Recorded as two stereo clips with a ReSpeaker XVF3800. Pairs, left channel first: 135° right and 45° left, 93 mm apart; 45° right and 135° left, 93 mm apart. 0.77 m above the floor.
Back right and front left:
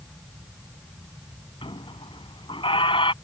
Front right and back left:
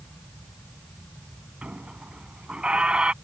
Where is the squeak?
145° right.